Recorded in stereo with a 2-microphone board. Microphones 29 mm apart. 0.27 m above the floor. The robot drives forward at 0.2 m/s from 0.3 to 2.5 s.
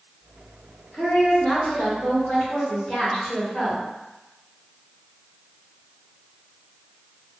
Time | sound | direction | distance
0.9 | a woman speaking | 40° left (ahead or behind) | 1.6 m